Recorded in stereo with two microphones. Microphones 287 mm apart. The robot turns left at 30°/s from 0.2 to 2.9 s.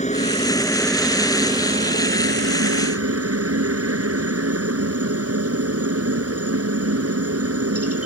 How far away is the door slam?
No door slam in this recording.